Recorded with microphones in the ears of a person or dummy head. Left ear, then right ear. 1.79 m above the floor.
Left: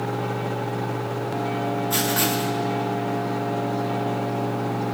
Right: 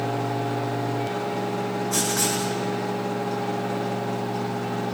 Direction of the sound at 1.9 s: 35° left (ahead or behind).